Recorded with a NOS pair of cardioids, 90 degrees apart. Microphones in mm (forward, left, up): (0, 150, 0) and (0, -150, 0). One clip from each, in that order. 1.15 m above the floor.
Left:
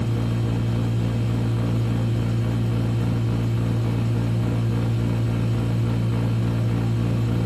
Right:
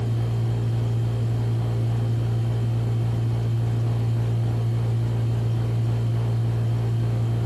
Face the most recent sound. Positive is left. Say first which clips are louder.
# left 4 dB
turn(degrees=65)